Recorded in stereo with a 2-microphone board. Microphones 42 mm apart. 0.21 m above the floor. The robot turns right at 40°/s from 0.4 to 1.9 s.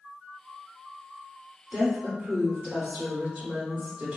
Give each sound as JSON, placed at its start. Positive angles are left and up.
{"t": 1.7, "sound": "a woman speaking", "side_deg": -30, "distance_m": 1.6}